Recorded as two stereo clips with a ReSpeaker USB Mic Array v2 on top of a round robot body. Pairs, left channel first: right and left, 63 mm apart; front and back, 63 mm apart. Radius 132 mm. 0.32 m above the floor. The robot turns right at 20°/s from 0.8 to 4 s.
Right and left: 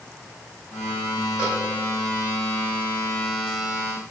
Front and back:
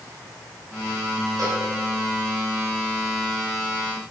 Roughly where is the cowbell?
Behind.